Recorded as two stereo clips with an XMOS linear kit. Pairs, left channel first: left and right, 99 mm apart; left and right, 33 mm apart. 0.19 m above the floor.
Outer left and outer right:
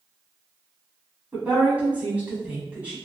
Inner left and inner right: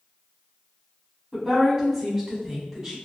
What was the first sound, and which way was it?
A woman speaking, 15° right (ahead or behind).